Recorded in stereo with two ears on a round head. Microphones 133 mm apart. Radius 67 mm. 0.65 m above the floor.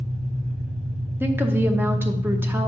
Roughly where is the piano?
I don't hear a piano.